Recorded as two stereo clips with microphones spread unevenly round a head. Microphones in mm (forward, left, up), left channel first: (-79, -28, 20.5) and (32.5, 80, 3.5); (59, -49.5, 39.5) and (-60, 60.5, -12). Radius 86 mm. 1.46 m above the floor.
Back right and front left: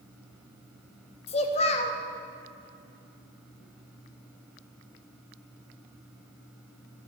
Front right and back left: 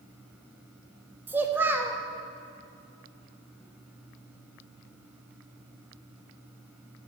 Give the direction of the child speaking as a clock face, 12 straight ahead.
4 o'clock.